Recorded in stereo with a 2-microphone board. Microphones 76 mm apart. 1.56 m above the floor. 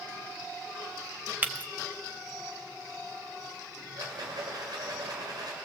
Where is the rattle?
65° right (ahead or behind), 6 m.